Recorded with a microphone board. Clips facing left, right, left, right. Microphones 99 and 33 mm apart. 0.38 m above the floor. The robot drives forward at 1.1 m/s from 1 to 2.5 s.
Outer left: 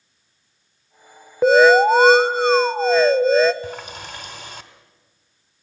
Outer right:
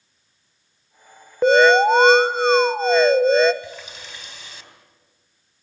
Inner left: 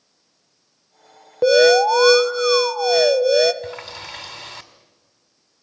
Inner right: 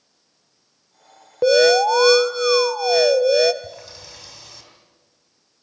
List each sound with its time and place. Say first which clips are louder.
1.4 s an alarm: outer left 2 dB, inner left 1 dB; centre (ahead or behind), 0.7 m
3.6 s a running tap: outer left 5 dB, inner left 6 dB; 50° left (ahead or behind), 1.6 m